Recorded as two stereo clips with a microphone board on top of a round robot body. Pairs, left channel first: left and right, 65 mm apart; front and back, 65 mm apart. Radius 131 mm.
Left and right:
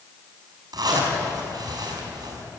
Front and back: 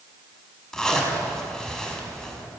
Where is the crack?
I don't hear a crack.